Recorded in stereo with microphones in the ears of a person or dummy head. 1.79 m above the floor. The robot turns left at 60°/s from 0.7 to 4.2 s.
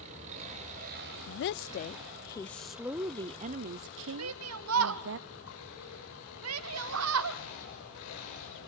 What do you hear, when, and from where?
0.0 s an engine running: 35° right, 6.5 m; by 8.7 s 115° left, 6.5 m
1.3 s a woman speaking: 90° left, 0.6 m; by 5.2 s 85° right, 0.6 m
4.2 s a shout: 85° right, 0.8 m